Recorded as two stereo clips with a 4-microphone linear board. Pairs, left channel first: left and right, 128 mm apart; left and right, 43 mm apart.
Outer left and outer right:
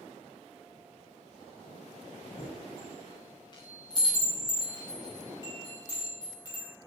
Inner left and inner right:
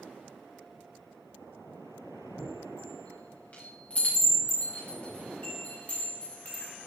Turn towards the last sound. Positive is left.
turn(degrees=40)  # may be behind; listen again after turning